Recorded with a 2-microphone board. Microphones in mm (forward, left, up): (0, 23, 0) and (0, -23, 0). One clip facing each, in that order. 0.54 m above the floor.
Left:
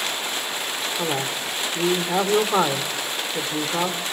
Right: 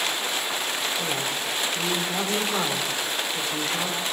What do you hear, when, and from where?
1.0 s a man speaking: 45° left (ahead or behind), 2 m